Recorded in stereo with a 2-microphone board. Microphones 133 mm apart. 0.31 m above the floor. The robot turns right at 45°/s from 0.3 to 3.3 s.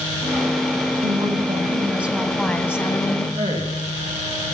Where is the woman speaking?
55° right, 2 m; by 3.2 s 45° left, 2 m.